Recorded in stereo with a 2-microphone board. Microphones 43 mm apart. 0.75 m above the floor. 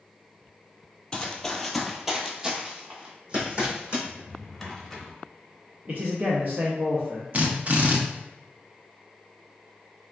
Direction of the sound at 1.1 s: 20° left (ahead or behind).